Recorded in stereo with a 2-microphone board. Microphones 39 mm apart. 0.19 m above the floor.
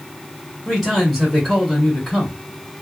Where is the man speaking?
5° left (ahead or behind), 1.8 m.